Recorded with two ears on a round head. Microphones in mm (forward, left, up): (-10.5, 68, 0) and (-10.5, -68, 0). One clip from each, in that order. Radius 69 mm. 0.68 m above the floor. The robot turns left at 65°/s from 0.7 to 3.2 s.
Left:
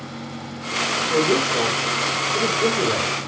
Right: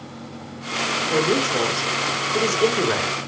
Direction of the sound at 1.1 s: 20° right.